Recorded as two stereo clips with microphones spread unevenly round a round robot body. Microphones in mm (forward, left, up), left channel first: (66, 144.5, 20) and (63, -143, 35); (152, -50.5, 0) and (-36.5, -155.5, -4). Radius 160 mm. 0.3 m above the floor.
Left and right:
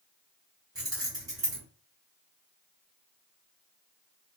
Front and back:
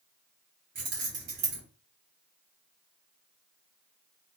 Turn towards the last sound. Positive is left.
turn(degrees=-170)